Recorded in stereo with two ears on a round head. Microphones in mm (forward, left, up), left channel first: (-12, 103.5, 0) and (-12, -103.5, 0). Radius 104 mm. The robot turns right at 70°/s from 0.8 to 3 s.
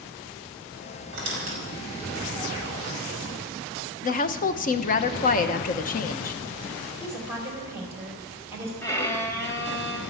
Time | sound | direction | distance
1.1 | a squeak | 60° right (ahead or behind) | 5 m
4.0 | a woman speaking | 35° left (ahead or behind) | 1.1 m
7.0 | a woman speaking | 10° right (ahead or behind) | 5 m
8.8 | a violin | 15° left (ahead or behind) | 2.5 m